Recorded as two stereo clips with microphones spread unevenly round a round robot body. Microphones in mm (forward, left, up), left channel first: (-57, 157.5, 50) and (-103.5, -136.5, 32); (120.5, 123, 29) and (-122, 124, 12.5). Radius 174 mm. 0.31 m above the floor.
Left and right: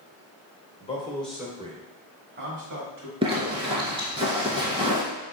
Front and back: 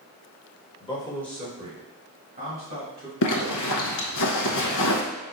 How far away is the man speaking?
About 1.0 m.